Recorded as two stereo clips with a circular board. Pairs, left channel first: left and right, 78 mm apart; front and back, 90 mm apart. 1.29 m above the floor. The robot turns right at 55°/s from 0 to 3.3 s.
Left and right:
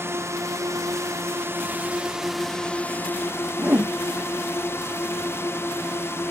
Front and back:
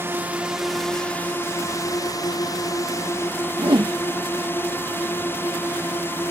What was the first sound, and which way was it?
A drone, 130° right.